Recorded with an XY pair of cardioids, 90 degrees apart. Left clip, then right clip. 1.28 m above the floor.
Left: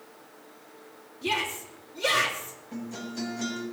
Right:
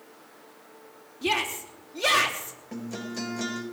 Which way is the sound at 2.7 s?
70° right.